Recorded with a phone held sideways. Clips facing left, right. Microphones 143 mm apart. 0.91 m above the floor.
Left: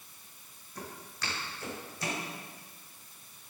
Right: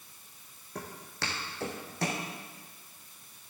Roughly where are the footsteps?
Right.